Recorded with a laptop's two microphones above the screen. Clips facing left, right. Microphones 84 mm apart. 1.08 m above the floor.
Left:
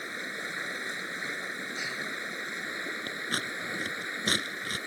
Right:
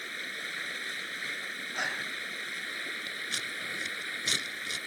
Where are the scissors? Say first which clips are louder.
Left 4 dB; 45° left (ahead or behind).